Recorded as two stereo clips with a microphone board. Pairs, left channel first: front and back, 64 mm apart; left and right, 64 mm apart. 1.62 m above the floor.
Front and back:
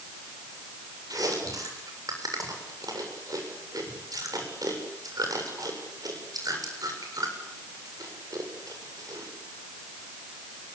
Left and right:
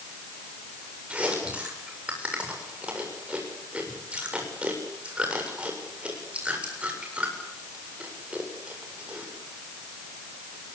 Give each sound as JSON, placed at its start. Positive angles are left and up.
{"t": 1.1, "sound": "chewing", "azimuth_deg": -160, "distance_m": 7.5}